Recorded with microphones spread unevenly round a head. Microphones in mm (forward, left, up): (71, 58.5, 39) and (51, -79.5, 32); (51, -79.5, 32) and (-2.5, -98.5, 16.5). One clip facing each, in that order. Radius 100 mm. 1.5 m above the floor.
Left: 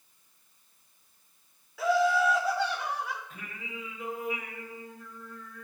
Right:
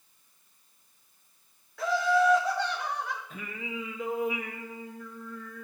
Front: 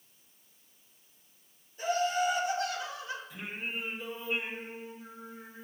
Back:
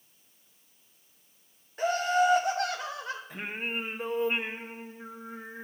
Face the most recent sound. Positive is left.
turn(degrees=-120)